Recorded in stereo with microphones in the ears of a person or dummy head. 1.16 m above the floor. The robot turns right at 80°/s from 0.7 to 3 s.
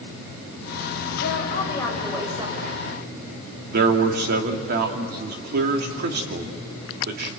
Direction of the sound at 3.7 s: 60° right (ahead or behind).